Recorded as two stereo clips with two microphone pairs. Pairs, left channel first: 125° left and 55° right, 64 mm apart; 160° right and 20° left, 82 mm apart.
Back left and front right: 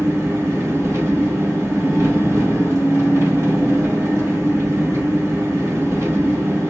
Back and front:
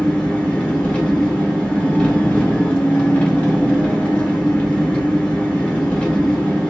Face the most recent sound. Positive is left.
turn(degrees=-90)